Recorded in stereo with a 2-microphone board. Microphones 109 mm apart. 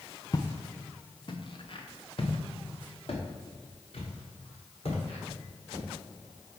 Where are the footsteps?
30° left (ahead or behind), 0.8 m; by 5.8 s 60° left (ahead or behind), 4 m.